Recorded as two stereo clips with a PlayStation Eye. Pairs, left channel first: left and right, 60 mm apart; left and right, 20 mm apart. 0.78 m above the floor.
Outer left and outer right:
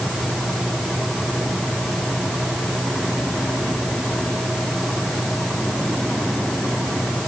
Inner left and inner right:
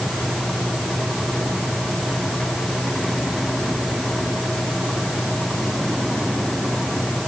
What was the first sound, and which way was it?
Only background noise.